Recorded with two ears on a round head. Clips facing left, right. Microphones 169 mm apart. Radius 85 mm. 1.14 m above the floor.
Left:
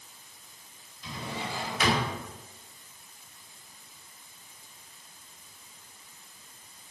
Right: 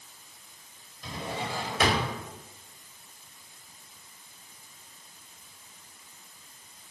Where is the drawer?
45° right (ahead or behind), 1.8 m.